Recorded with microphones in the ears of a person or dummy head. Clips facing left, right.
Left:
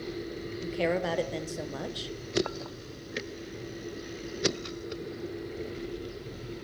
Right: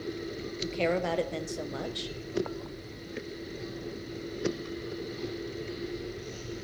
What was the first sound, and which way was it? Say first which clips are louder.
A woman speaking: even; 5° right (ahead or behind).